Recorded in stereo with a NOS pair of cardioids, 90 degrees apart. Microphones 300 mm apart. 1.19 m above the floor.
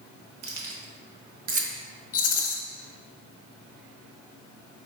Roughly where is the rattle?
Ahead left.